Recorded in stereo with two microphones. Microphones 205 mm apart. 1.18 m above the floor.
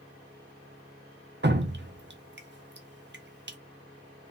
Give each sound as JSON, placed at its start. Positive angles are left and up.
{"t": 1.4, "sound": "dripping", "side_deg": -60, "distance_m": 0.6}